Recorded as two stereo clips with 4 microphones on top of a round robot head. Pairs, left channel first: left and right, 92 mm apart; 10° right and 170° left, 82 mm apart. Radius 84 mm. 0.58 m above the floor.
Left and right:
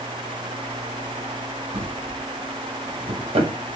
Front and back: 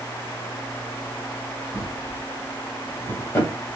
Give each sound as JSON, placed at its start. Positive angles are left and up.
{"t": 1.7, "sound": "a drawer", "azimuth_deg": -70, "distance_m": 1.9}